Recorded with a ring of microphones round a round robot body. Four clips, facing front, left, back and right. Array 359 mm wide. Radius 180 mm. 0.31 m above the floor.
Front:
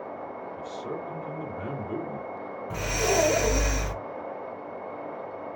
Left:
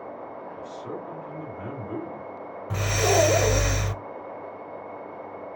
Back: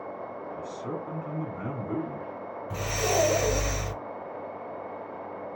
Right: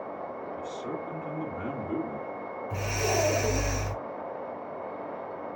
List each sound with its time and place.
0.6 s a man speaking: 155° right, 2.5 m
2.7 s breathing: 90° left, 0.5 m